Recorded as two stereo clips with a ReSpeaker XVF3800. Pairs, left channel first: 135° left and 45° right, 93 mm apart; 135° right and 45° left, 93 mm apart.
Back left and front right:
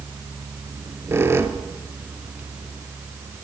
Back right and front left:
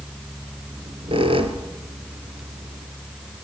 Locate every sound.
0.7 s a squeak: 20° left, 2.5 m